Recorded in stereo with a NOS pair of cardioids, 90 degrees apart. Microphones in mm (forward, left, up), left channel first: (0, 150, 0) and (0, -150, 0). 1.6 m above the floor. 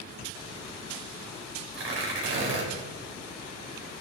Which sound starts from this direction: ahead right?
Tearing paper, at 1.7 s.